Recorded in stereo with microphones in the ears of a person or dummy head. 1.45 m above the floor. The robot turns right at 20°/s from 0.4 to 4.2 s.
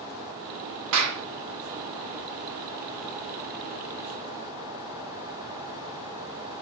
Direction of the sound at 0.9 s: 75° right (ahead or behind).